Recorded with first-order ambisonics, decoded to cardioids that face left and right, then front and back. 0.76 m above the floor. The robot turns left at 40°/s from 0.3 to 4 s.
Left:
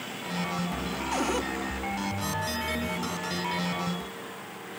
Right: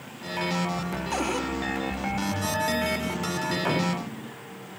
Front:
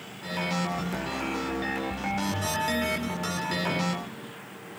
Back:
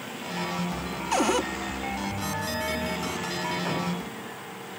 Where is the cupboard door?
170° right; by 1.5 s 175° left.